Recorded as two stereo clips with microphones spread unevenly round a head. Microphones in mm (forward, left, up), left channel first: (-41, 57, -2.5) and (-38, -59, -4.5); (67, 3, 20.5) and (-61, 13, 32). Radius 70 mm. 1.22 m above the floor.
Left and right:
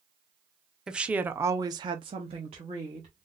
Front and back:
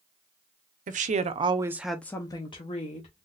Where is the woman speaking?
170° right, 0.7 m; by 3.2 s 35° right, 1.1 m.